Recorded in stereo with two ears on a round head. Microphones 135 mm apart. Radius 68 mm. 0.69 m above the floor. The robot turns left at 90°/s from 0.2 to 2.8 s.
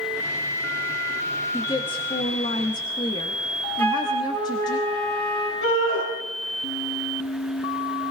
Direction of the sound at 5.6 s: 80° left.